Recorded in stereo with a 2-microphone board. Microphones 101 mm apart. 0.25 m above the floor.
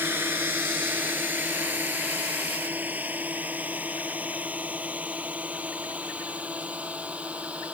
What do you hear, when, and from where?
0.0 s a drone: 20° right (ahead or behind); by 7.7 s 15° right (ahead or behind)